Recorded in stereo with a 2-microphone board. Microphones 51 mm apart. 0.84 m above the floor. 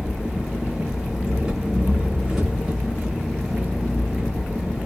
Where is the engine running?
15° right (ahead or behind), 1.4 m.